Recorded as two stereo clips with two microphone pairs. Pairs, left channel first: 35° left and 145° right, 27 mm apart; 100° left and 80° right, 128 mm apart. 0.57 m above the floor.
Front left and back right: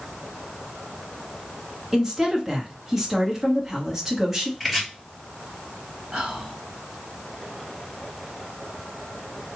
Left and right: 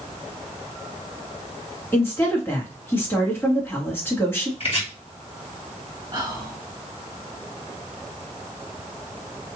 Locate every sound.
1.9 s a woman speaking: 155° left, 1.2 m
4.6 s chopping: 130° left, 2 m
6.1 s whispering: 125° right, 1.5 m